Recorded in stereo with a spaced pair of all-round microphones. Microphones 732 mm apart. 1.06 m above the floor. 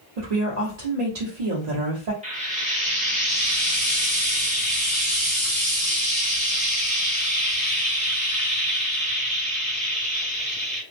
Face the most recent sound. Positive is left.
turn(degrees=-10)  # may be behind; listen again after turning